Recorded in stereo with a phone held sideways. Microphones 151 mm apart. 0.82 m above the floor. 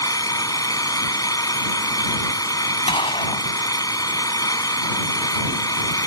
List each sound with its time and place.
0.0 s an engine running: 25° left (ahead or behind)
2.9 s a gunshot: 40° left (ahead or behind)